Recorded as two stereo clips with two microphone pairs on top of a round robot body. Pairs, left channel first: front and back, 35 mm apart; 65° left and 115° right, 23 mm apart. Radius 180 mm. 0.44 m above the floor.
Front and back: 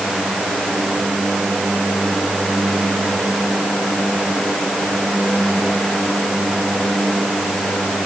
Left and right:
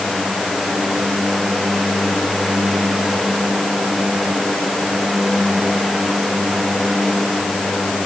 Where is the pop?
No pop in this recording.